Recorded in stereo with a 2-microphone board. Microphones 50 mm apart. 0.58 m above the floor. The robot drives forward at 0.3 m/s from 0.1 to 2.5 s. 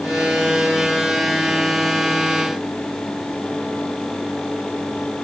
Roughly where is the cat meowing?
I don't hear a cat meowing.